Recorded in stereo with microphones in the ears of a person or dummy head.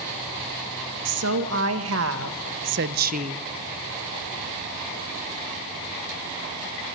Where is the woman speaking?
80° right, 2 m; by 3.4 s 25° right (ahead or behind), 0.6 m.